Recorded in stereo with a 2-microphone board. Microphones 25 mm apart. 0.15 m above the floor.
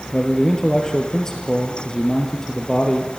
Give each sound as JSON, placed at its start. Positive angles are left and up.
{"t": 0.1, "sound": "a man speaking", "side_deg": 20, "distance_m": 2.5}